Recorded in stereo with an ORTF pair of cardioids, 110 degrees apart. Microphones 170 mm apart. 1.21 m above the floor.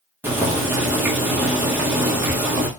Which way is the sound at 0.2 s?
10° right.